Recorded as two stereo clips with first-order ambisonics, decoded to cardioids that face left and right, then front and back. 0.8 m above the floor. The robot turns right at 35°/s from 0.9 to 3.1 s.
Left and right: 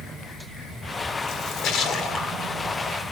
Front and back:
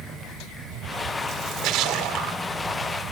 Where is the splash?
125° left, 1.4 m; by 2.4 s 165° left, 1.4 m.